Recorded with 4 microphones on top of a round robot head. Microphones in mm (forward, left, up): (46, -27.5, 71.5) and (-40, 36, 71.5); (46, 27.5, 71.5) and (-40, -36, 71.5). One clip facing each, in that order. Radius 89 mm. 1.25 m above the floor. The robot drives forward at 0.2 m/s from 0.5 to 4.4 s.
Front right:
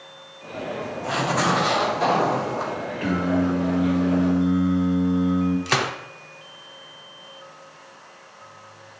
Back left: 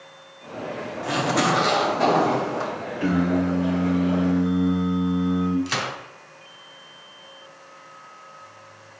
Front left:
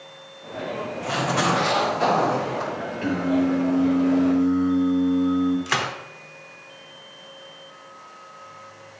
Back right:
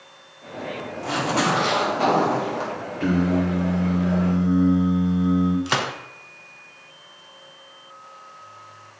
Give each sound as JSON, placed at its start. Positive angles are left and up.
{"t": 1.0, "sound": "a zipper", "azimuth_deg": 175, "distance_m": 1.9}
{"t": 3.0, "sound": "singing", "azimuth_deg": -150, "distance_m": 2.5}
{"t": 5.7, "sound": "a gunshot", "azimuth_deg": -75, "distance_m": 0.7}